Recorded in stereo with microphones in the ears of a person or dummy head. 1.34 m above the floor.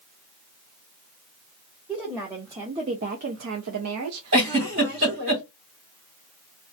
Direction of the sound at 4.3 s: 60° right (ahead or behind).